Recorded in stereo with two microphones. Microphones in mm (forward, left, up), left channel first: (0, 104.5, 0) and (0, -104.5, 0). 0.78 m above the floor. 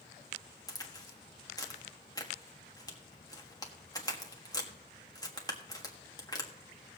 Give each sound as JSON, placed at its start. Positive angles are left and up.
{"t": 0.7, "sound": "a crack", "side_deg": 20, "distance_m": 1.5}